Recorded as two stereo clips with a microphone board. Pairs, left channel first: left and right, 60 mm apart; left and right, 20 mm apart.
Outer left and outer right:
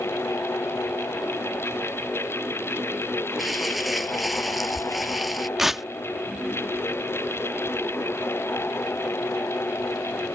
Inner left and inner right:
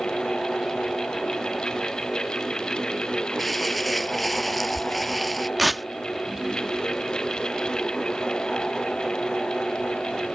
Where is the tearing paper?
5° right (ahead or behind).